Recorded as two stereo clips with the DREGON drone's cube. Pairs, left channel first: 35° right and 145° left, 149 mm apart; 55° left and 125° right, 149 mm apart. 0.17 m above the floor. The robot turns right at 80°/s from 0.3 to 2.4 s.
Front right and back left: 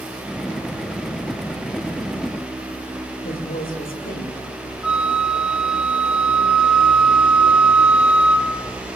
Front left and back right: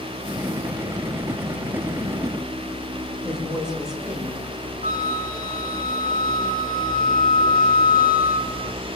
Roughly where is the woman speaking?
Ahead right.